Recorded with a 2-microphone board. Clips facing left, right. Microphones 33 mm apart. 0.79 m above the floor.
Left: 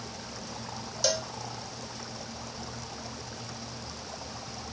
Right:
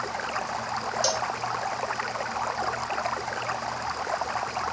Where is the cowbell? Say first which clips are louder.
Even; 5° left (ahead or behind).